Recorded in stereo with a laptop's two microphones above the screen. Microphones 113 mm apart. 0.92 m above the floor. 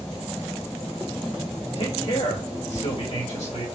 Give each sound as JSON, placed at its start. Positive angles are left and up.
{"t": 1.8, "sound": "a man speaking", "side_deg": 70, "distance_m": 2.5}